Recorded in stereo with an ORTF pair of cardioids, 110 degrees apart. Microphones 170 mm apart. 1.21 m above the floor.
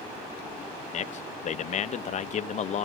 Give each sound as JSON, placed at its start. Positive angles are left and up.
{"t": 0.9, "sound": "a man speaking", "azimuth_deg": 45, "distance_m": 0.9}